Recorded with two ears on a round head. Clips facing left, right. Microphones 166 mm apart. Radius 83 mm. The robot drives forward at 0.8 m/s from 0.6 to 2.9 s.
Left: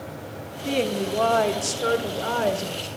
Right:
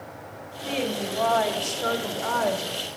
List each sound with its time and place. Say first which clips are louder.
0.7 s a woman speaking: left 4 dB; 55° left (ahead or behind), 1.5 m; by 2.9 s 30° left (ahead or behind), 2.5 m